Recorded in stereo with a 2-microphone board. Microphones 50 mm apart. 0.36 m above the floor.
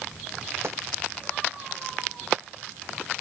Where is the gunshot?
55° right (ahead or behind).